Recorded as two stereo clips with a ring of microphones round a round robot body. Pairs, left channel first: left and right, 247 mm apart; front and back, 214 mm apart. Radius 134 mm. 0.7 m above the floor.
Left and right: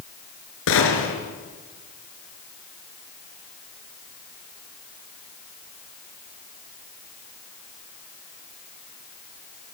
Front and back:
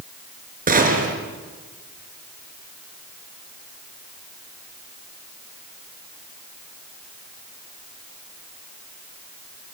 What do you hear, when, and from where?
0.7 s a gunshot: 130° left, 4.5 m